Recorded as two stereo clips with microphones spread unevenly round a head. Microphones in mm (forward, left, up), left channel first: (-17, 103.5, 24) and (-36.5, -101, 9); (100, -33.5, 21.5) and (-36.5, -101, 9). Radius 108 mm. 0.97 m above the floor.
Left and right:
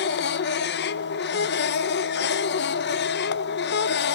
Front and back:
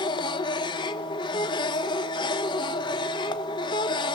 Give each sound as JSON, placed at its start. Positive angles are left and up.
{"t": 0.0, "sound": "a machine running", "azimuth_deg": 85, "distance_m": 1.0}